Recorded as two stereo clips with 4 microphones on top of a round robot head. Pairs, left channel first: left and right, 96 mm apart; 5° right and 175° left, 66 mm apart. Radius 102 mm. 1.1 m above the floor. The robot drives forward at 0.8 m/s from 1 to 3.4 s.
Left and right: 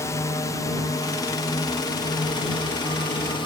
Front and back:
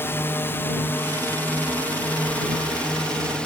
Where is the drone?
40° left; by 3.5 s 65° left.